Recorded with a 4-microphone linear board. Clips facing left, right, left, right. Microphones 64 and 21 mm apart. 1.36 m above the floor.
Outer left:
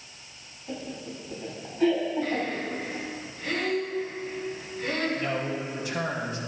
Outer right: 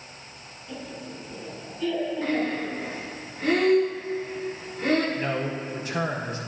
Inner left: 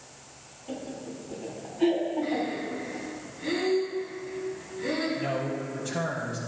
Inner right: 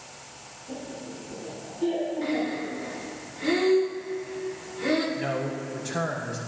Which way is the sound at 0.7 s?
55° left (ahead or behind).